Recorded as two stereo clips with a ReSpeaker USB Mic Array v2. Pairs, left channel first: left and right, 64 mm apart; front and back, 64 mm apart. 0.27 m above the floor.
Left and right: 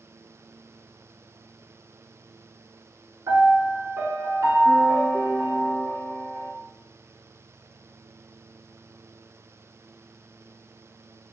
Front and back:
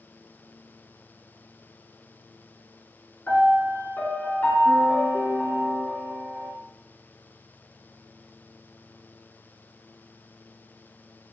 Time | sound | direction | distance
3.3 | a piano | 60° right | 0.7 m